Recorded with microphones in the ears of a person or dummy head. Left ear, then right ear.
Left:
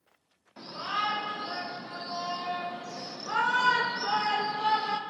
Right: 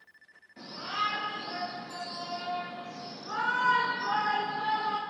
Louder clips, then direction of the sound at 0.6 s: Left 1 dB; 35° left (ahead or behind).